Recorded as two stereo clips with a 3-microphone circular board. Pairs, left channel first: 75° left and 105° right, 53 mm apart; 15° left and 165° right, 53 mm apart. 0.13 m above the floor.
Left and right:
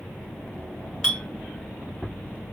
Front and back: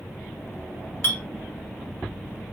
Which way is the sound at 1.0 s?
5° left.